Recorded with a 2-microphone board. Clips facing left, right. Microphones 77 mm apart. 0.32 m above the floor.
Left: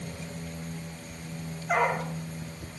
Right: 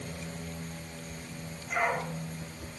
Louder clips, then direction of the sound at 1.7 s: Left 4 dB; 75° left (ahead or behind).